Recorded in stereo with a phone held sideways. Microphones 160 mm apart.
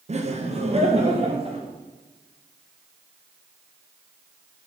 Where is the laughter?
45° right (ahead or behind), 1.0 m; by 1.7 s 40° right (ahead or behind), 2 m.